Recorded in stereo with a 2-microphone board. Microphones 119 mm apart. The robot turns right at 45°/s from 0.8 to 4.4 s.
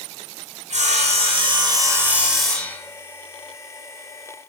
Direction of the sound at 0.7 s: 70° right.